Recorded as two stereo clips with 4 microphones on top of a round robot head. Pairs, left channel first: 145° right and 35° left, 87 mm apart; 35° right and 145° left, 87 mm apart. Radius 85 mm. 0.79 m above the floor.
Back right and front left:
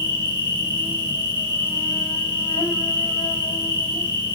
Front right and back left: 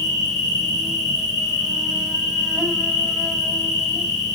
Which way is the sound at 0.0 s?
125° right.